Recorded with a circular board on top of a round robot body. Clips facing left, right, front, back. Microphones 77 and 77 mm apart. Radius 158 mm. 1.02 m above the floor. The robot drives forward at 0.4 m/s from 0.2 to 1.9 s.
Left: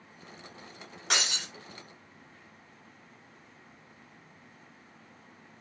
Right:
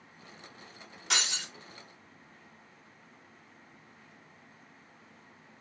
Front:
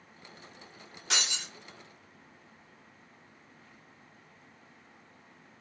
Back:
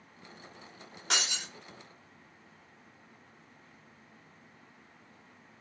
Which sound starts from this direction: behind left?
Breaking glass, at 1.1 s.